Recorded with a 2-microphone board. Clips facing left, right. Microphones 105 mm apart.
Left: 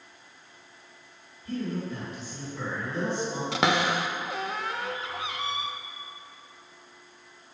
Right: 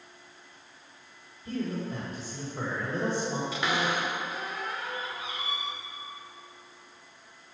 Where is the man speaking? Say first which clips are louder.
Left 1 dB; 45° right (ahead or behind), 2 m.